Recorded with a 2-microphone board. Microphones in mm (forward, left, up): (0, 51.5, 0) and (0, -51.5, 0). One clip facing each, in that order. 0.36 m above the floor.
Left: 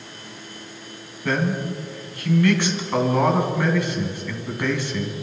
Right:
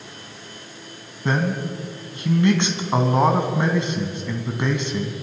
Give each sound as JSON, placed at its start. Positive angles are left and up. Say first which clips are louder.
{"t": 1.2, "sound": "a man speaking", "louder": "even", "side_deg": -20, "distance_m": 3.5}